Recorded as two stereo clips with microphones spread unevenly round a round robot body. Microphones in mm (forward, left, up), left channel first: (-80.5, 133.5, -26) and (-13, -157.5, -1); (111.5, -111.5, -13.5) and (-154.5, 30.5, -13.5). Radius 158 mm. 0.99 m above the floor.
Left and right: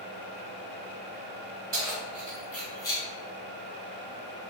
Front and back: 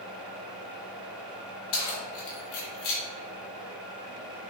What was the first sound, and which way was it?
Keys jangling, 10° right.